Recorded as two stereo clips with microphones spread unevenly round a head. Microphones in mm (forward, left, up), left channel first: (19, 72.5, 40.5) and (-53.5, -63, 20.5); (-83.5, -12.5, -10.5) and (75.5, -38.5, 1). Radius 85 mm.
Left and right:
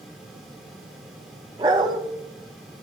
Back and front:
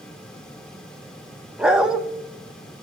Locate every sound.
1.6 s a dog barking: 70° right, 0.8 m